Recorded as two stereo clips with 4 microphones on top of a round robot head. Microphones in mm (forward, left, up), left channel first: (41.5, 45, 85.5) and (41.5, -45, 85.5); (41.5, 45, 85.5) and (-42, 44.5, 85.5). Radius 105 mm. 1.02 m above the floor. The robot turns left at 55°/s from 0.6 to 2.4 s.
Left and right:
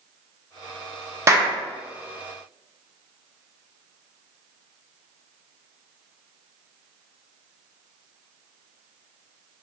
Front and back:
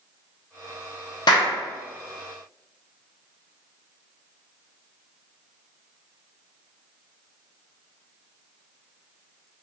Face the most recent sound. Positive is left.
turn(degrees=-95)